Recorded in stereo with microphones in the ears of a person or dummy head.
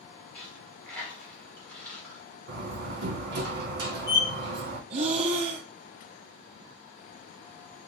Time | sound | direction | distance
0.3 | a dropped coin | 5° left (ahead or behind) | 1.8 m
2.5 | a door slam | 60° right (ahead or behind) | 1.8 m
4.9 | breathing | 35° right (ahead or behind) | 0.7 m